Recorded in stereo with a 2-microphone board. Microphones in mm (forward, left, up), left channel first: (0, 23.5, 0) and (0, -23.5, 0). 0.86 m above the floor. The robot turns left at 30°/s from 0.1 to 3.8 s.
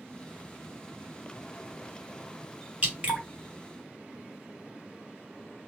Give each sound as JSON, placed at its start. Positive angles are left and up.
{"t": 2.8, "sound": "dripping", "side_deg": -30, "distance_m": 1.4}